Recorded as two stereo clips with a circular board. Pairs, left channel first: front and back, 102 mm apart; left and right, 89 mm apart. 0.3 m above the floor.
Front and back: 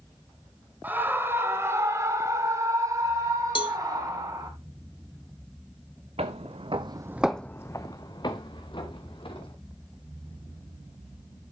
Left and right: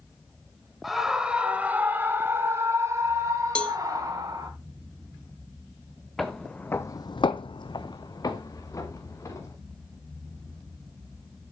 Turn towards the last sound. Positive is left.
turn(degrees=35)